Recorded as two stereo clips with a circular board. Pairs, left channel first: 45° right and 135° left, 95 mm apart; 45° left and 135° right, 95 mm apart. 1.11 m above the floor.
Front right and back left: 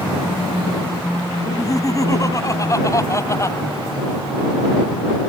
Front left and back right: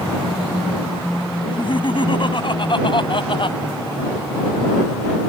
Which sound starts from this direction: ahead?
Laughter, at 1.4 s.